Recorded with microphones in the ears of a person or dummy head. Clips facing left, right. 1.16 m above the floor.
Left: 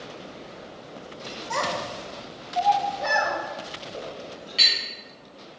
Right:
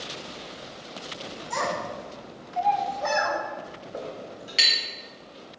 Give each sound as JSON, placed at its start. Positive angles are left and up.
{"t": 1.5, "sound": "a child speaking", "side_deg": 60, "distance_m": 1.2}
{"t": 3.9, "sound": "a clink", "side_deg": -25, "distance_m": 1.0}